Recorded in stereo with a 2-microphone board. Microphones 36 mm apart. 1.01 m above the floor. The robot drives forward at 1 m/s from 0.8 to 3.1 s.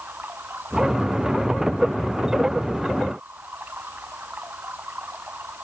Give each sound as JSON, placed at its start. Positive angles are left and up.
{"t": 0.0, "sound": "running water", "side_deg": -60}